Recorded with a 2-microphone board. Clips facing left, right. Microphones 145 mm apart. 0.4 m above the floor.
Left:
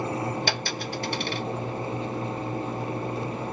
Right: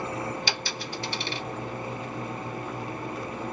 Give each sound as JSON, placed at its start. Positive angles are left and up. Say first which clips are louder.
{"t": 0.5, "sound": "a dropped coin", "louder": "left 4 dB", "side_deg": 55, "distance_m": 1.1}